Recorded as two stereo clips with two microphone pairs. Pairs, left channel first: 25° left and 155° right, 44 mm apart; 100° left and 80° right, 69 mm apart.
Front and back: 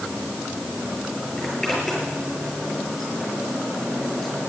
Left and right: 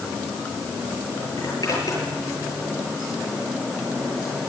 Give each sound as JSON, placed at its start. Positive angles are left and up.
{"t": 1.4, "sound": "a zipper", "azimuth_deg": 115, "distance_m": 8.5}